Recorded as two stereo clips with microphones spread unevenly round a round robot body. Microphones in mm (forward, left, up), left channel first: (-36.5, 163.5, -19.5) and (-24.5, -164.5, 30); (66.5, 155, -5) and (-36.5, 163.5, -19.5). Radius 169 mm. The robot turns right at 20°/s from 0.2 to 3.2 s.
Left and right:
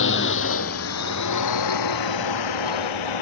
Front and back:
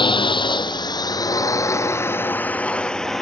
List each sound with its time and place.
0.0 s a drone: 35° left; by 3.2 s 80° left